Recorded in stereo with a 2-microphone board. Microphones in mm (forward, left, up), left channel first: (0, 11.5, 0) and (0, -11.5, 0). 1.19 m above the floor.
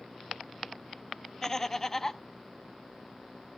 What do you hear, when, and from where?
1.4 s laughter: 15° left (ahead or behind), 0.8 m